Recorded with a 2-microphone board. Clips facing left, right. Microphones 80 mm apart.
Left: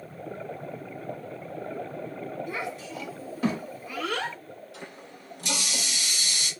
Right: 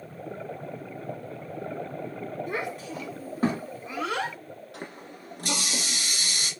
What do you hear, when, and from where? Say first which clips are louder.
2.5 s a child speaking: right 2 dB; 55° right (ahead or behind), 1.8 m; by 4.4 s 15° right (ahead or behind), 1.1 m
4.7 s a running tap: right 2 dB; 55° right (ahead or behind), 1.3 m